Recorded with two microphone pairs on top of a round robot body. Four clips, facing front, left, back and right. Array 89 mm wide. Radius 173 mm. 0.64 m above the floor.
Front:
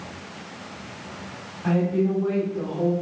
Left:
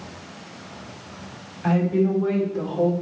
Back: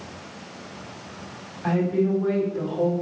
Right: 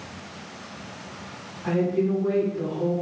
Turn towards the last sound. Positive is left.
turn(degrees=110)